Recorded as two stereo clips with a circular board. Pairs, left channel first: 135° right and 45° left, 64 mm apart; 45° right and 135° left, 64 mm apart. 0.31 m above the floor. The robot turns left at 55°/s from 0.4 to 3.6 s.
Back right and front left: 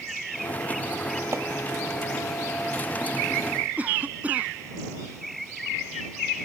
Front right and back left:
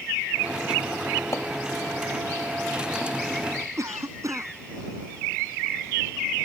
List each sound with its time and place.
1.3 s chopping: straight ahead; by 1.5 s 10° right
3.8 s a cough: 105° left